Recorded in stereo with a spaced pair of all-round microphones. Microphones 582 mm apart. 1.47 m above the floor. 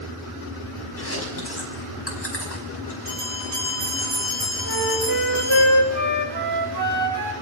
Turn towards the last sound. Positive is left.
turn(degrees=-40)  # may be behind; listen again after turning